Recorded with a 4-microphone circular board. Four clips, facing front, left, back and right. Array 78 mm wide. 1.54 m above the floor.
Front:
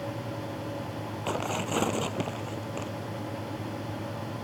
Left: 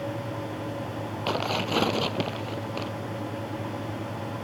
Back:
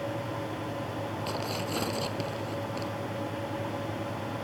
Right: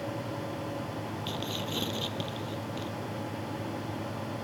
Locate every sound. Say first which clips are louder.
1.3 s tearing paper: left 12 dB, front 6 dB; 70° left